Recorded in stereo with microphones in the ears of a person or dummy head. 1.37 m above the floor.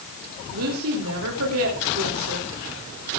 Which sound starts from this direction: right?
A woman speaking, at 0.5 s.